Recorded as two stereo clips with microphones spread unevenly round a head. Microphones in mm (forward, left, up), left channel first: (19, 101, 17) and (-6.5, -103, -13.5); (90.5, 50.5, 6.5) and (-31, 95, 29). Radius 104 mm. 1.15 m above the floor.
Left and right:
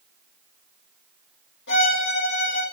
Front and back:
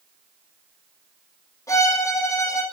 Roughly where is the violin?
Ahead left.